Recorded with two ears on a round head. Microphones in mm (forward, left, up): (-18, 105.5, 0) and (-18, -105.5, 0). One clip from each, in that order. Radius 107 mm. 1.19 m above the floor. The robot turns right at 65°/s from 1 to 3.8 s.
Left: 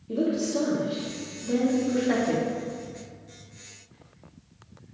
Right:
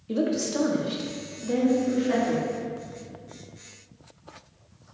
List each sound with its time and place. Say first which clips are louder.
0.1 s a woman speaking: even; 45° right (ahead or behind), 1.6 m; by 2.5 s 50° left (ahead or behind), 1.6 m